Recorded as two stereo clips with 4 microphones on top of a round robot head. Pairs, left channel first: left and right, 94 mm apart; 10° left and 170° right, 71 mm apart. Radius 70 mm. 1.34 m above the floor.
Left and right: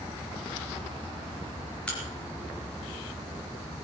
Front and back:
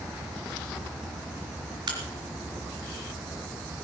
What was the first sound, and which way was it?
A crack, 170° left.